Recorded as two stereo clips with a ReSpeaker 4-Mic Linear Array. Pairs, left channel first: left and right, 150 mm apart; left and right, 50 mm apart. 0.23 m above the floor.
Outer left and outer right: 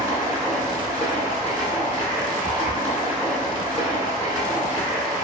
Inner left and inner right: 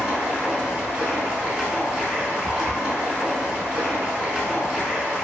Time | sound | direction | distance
0.0 | running water | 15° right (ahead or behind) | 0.9 m